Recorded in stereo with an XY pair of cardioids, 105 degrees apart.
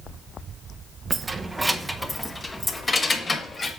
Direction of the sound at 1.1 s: 35° right.